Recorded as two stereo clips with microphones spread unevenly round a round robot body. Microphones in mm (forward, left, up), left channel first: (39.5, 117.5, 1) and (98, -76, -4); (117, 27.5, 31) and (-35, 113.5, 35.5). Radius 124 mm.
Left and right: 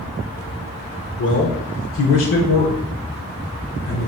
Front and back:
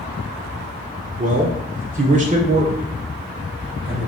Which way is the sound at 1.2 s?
120° left.